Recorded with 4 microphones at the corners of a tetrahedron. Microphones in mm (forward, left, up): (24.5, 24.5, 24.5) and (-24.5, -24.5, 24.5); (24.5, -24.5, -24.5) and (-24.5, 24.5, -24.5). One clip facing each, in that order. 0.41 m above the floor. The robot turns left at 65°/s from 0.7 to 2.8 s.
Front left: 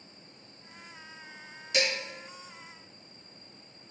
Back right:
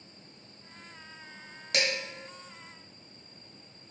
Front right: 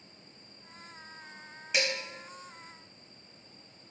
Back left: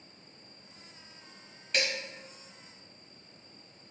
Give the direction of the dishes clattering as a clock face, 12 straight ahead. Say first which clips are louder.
Front left 1 dB, front right 1 dB; 4 o'clock.